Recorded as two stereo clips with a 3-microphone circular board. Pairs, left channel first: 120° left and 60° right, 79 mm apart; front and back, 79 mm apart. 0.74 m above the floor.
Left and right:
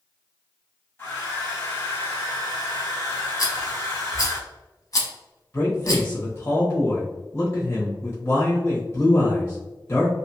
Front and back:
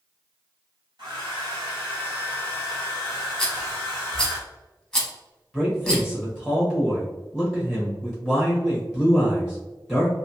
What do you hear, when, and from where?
1.0 s a hair dryer: straight behind, 1.7 m
3.4 s a rattle: 85° left, 1.0 m
5.5 s a man speaking: 90° left, 1.1 m